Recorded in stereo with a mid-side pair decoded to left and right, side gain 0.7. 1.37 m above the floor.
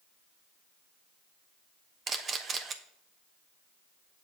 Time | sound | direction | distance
2.1 | a camera shutter | 30° right | 1.0 m